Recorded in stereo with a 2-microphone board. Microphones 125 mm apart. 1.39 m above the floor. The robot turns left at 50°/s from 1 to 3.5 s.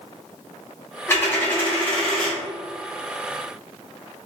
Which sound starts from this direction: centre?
A dropped coin, at 1.1 s.